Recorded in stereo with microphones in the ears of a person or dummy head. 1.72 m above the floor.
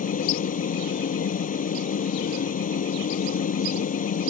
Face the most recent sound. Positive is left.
turn(degrees=40)  # may be behind; listen again after turning